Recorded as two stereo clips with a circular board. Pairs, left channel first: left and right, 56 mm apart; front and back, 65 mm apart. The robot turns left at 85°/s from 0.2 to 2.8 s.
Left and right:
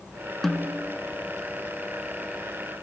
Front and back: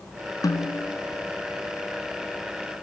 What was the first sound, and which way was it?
A snare drum, 5° left.